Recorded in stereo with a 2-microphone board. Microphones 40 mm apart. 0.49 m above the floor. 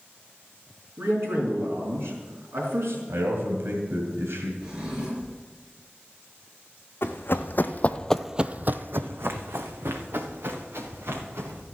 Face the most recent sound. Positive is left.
turn(degrees=-75)  # may be behind; listen again after turning